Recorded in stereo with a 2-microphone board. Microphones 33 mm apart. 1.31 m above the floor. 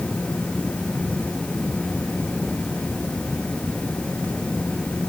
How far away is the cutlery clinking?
I don't hear cutlery clinking.